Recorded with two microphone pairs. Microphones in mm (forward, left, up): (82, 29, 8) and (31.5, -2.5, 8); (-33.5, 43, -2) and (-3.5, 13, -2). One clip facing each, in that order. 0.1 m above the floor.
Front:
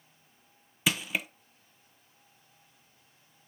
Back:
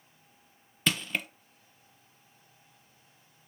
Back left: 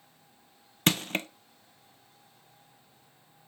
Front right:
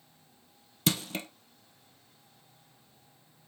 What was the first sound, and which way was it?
Crushing, 105° left.